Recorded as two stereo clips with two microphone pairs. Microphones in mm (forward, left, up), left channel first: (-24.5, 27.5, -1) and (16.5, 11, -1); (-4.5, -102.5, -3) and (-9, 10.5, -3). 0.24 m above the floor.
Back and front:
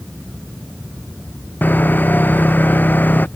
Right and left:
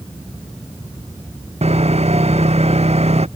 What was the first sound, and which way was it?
Sawing, 110° left.